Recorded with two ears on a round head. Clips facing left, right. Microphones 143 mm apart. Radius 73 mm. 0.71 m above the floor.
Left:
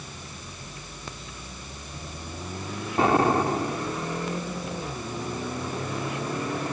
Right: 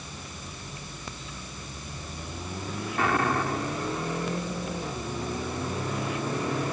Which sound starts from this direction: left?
An explosion, at 3.0 s.